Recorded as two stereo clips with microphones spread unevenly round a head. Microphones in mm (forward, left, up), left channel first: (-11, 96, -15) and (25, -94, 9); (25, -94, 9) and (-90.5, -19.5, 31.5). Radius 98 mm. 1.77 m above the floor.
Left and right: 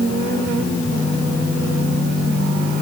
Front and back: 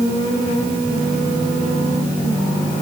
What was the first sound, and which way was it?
Only background noise.